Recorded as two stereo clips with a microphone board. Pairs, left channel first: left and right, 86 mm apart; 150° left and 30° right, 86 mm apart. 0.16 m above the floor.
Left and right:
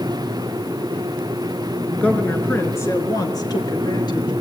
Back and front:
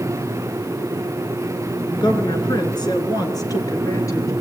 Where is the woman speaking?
165° left, 2.5 m; by 4.3 s 105° left, 3 m.